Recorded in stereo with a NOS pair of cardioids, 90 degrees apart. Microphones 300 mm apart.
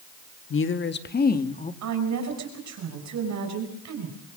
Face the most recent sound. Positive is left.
turn(degrees=-65)